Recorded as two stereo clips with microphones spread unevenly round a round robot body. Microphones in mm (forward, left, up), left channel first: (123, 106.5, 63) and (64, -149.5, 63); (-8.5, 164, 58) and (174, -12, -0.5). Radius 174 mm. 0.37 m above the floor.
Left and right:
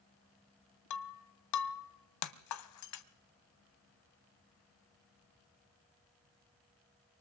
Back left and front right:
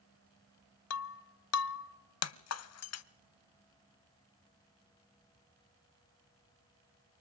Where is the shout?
I don't hear a shout.